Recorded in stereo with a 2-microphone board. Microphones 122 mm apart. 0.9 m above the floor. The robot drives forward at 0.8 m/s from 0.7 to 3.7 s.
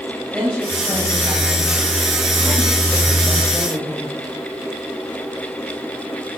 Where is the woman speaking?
5° right (ahead or behind), 6 m; by 4.2 s 10° right (ahead or behind), 3.5 m.